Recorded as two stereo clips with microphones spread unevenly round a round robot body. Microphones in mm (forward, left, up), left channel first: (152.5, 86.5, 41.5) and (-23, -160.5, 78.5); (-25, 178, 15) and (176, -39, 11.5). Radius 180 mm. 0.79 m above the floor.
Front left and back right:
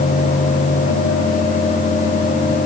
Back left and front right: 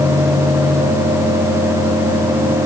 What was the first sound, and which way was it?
Only background noise.